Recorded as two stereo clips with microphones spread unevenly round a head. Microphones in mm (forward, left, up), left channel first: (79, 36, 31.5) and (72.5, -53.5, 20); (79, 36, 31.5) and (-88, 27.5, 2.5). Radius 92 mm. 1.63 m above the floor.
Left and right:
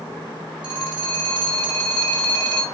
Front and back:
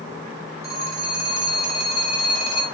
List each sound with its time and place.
0.6 s a phone ringing: 15° right, 2 m